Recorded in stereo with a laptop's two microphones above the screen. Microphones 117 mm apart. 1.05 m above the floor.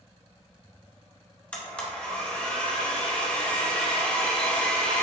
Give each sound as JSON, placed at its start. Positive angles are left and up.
{"t": 1.5, "sound": "a blender", "side_deg": 10, "distance_m": 0.6}